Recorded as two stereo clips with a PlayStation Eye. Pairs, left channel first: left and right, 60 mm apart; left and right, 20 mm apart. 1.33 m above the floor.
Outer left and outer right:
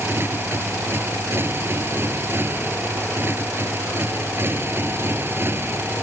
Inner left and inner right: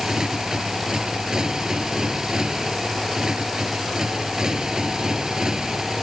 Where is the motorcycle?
40° right (ahead or behind).